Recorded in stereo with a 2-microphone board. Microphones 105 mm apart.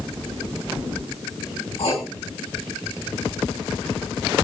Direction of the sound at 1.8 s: 65° left (ahead or behind).